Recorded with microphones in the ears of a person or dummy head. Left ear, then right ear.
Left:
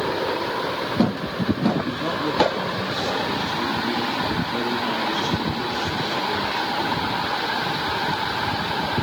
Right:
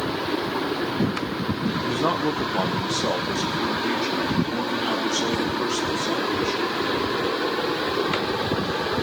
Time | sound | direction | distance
1.8 | a man speaking | 40° right (ahead or behind) | 0.8 m